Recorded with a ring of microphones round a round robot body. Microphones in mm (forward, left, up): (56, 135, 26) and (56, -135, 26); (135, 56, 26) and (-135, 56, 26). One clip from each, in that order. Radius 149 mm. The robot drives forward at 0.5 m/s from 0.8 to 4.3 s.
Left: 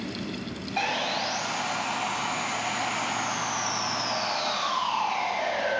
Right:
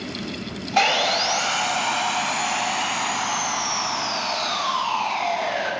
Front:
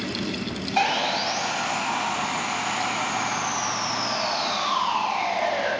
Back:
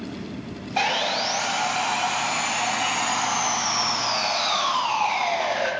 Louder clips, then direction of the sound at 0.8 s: Right 9 dB, even; 90° right.